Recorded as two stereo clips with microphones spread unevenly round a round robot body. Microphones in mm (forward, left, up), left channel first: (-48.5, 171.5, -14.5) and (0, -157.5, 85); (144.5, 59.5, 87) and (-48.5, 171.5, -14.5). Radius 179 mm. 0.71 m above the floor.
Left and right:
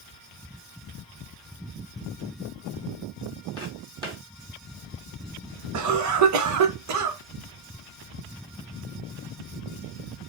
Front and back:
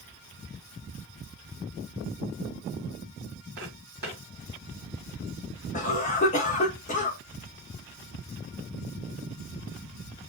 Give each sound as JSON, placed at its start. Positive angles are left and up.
{"t": 3.6, "sound": "footsteps", "azimuth_deg": -150, "distance_m": 1.4}
{"t": 5.7, "sound": "a cough", "azimuth_deg": -110, "distance_m": 0.8}